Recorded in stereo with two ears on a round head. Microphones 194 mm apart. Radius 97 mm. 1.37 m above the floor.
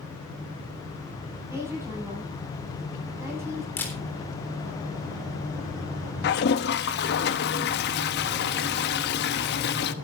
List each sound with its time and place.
1.5 s a woman speaking: 10° right (ahead or behind), 9 m
3.8 s a camera shutter: 10° left (ahead or behind), 3.5 m
6.2 s a toilet flushing: 50° left (ahead or behind), 1.0 m